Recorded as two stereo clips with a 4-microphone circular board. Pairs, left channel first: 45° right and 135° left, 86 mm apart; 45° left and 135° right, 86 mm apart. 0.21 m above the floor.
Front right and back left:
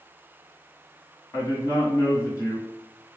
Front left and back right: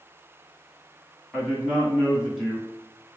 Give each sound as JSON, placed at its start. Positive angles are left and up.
{"t": 1.3, "sound": "a man speaking", "azimuth_deg": -50, "distance_m": 1.9}